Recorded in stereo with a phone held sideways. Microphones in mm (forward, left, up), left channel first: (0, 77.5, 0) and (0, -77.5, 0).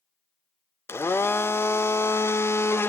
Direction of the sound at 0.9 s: 15° left (ahead or behind).